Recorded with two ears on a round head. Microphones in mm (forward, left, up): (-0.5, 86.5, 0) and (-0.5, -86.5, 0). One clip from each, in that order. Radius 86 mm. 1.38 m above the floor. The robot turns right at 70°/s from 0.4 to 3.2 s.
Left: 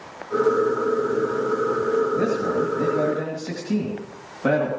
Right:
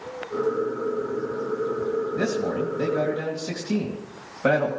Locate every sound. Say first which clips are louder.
2.1 s a man speaking: left 3 dB; 105° right, 2.5 m; by 4.7 s 35° right, 2.5 m